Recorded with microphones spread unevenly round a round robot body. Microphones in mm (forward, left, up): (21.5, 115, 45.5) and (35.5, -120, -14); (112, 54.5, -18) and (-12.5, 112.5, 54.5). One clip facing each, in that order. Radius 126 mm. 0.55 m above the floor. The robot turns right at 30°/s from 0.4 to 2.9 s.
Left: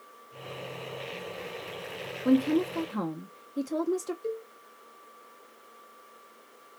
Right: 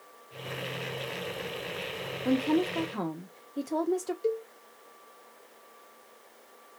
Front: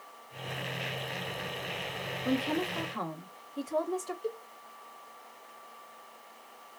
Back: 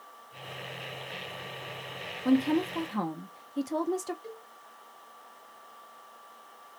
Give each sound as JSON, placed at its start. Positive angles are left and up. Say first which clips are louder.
{"t": 2.2, "sound": "a woman speaking", "louder": "left 3 dB, back 6 dB", "azimuth_deg": -175, "distance_m": 0.7}
{"t": 4.2, "sound": "a cowbell", "louder": "right 5 dB, front 8 dB", "azimuth_deg": -55, "distance_m": 1.0}